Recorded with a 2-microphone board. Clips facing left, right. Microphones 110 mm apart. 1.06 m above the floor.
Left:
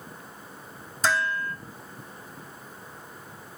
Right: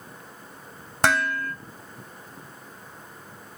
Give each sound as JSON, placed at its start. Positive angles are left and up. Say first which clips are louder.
{"t": 1.0, "sound": "dishes clattering", "louder": "right 3 dB", "side_deg": -65, "distance_m": 1.0}